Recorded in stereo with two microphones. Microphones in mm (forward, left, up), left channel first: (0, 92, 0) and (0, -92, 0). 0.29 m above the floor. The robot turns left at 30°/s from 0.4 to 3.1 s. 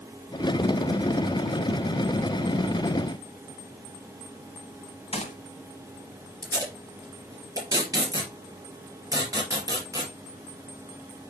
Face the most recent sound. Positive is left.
turn(degrees=-20)  # may be behind; listen again after turning